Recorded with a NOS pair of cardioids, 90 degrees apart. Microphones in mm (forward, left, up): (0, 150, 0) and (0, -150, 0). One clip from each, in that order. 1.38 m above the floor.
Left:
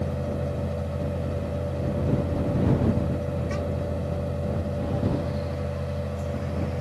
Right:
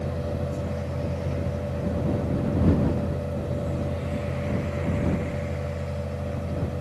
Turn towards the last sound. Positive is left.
turn(degrees=5)